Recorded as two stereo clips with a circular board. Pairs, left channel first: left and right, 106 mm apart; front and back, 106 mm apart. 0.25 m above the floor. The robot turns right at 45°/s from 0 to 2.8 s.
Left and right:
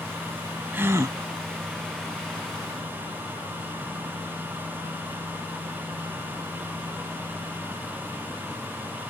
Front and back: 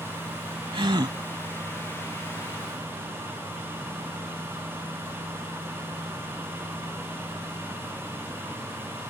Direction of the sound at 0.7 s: 160° right.